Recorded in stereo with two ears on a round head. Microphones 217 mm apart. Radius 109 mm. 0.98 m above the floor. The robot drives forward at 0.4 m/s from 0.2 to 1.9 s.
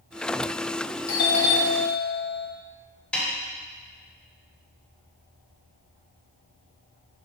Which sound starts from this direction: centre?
A snare drum, at 3.1 s.